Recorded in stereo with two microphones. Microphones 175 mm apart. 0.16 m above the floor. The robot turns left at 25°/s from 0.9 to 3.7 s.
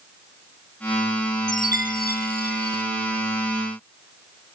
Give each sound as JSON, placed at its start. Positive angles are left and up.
{"t": 1.5, "sound": "a chime", "azimuth_deg": 125, "distance_m": 1.7}